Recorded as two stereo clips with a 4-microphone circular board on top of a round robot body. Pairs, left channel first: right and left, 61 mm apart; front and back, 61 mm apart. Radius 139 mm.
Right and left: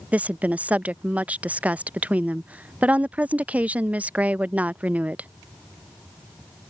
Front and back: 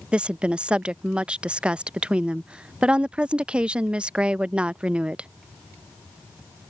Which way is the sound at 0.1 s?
125° left.